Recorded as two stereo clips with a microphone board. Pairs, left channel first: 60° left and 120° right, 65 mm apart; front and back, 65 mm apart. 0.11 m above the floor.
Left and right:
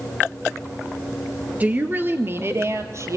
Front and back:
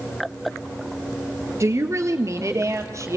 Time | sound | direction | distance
1.6 | a woman speaking | 175° right | 2 m